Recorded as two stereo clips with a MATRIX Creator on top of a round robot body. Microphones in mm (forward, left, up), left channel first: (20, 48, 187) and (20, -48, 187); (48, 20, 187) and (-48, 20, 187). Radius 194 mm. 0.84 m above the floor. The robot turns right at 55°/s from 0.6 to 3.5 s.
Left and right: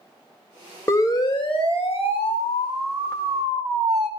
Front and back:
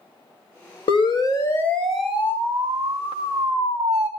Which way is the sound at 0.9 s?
25° left.